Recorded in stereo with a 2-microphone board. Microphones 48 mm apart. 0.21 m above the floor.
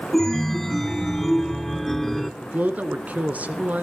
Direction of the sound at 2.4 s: 30° right (ahead or behind).